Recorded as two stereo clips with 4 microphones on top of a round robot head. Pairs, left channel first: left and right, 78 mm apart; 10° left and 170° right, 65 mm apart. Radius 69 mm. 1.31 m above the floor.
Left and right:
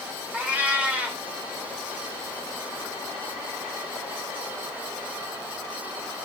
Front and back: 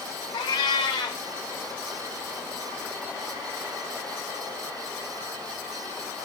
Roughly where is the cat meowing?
Ahead.